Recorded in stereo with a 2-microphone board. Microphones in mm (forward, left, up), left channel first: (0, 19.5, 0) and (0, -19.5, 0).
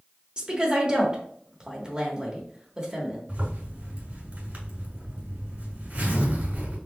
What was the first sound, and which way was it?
A woman speaking, 25° right (ahead or behind).